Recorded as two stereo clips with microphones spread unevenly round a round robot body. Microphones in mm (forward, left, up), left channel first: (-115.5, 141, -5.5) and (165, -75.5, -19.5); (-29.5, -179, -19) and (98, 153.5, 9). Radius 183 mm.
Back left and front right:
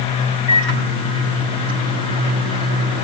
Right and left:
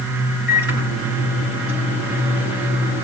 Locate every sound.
0.5 s a microwave: 175° right, 6.5 m